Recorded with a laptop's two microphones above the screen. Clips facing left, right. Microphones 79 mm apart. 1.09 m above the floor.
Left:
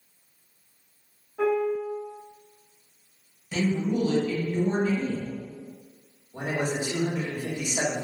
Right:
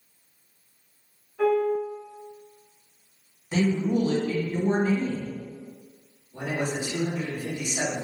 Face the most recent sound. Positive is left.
turn(degrees=55)  # may be behind; listen again after turning